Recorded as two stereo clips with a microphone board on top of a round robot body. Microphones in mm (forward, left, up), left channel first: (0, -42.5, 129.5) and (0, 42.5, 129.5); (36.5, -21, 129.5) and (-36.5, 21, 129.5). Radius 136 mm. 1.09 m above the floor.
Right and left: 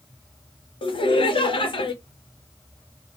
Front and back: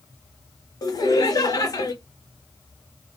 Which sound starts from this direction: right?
Laughter, at 0.8 s.